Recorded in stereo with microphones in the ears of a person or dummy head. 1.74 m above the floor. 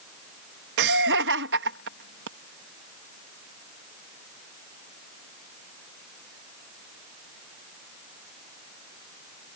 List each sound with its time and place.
0.8 s laughter: 70° right (ahead or behind)